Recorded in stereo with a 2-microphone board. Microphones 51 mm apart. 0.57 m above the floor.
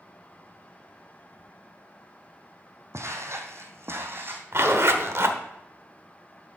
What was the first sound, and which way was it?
Footsteps, 65° right (ahead or behind).